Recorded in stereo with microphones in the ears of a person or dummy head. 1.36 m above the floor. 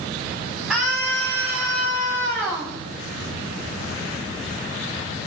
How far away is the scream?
About 9 m.